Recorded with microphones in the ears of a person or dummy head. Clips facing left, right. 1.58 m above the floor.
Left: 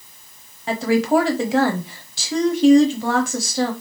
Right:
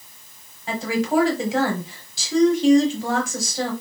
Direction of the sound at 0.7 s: 50° left (ahead or behind).